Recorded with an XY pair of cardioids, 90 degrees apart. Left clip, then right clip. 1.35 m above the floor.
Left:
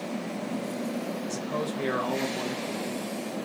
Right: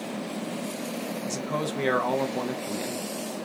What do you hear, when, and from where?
1.3 s a man speaking: 45° right, 0.8 m